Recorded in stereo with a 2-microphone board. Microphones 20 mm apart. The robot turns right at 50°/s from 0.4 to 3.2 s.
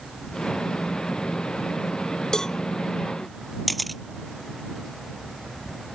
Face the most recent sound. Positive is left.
turn(degrees=5)  # may be behind; listen again after turning